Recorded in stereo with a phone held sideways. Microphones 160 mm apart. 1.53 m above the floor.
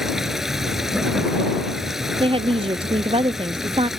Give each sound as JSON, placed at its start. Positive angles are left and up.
{"t": 0.0, "sound": "running water", "side_deg": 0}
{"t": 2.2, "sound": "a woman speaking", "side_deg": -35}